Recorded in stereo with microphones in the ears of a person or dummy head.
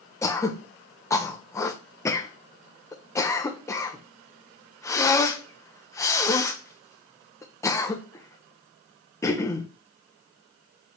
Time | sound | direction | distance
0.2 | throat clearing | 20° left (ahead or behind) | 0.8 m